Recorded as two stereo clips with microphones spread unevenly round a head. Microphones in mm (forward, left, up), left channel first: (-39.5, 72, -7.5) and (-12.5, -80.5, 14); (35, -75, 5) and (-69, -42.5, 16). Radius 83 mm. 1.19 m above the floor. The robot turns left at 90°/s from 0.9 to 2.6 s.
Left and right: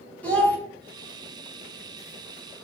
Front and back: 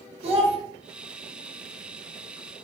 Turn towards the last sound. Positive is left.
turn(degrees=30)